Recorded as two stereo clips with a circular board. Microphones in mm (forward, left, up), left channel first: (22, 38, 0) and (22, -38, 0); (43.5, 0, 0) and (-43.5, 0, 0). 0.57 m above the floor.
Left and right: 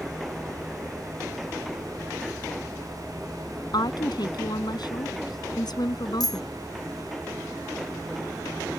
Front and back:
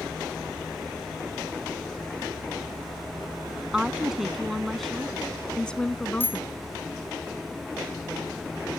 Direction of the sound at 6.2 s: 65° left.